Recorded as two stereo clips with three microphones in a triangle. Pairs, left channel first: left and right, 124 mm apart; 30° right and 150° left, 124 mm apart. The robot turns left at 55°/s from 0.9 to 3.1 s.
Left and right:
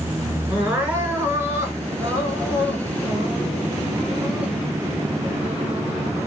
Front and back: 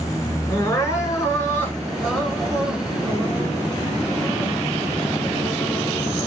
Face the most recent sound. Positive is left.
turn(degrees=-155)